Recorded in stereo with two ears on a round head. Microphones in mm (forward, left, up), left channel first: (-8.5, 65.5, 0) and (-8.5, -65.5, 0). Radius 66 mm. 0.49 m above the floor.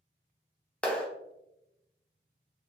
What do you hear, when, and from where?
0.8 s a clap: 5° left (ahead or behind), 0.6 m